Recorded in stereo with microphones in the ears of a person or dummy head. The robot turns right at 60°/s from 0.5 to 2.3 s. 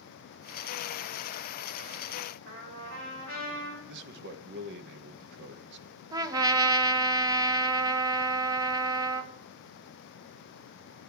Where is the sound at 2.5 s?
90° right, 6 m.